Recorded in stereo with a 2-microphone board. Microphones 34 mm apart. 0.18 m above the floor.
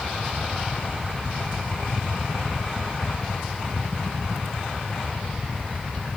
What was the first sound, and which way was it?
Only background noise.